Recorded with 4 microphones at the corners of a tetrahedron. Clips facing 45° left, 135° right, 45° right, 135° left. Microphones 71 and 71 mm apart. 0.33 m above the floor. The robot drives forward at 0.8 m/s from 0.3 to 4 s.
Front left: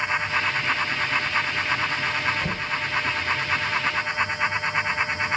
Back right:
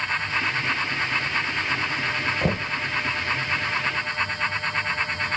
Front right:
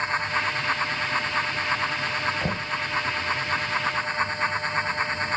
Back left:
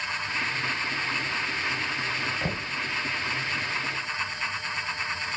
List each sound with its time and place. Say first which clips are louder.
2.4 s knocking: back right 2 dB, front right 3 dB; 120° right, 0.8 m; by 2.8 s 140° right, 0.9 m